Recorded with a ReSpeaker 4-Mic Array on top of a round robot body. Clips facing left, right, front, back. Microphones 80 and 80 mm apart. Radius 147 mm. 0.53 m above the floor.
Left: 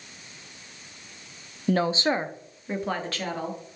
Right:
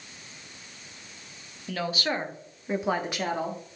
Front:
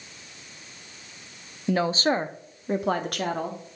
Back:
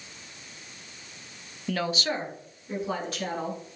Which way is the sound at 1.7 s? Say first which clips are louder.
Left 6 dB, front 6 dB; 60° left.